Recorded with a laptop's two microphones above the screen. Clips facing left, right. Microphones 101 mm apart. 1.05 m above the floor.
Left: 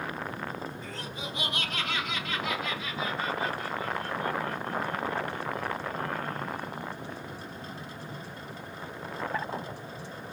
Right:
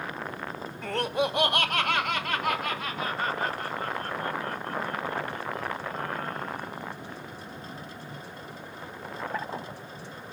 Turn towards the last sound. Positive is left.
turn(degrees=-50)  # may be behind; listen again after turning